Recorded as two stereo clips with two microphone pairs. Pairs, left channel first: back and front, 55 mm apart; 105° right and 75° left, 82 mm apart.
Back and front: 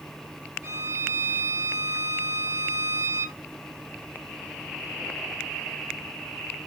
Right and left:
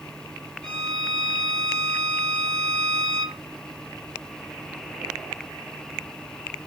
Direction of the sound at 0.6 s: 25° right.